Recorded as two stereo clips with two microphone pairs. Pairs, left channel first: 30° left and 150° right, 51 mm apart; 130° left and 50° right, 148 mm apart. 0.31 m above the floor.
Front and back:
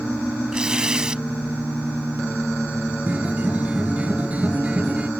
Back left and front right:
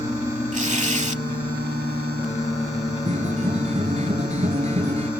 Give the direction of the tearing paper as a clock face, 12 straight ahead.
3 o'clock.